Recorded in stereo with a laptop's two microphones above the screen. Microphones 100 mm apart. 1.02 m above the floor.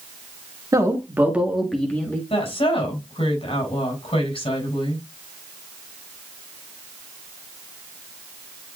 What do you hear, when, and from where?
0.7 s a man speaking: 35° right (ahead or behind), 1.7 m; by 2.2 s 25° left (ahead or behind), 1.6 m
2.3 s a woman speaking: 75° left (ahead or behind), 7 m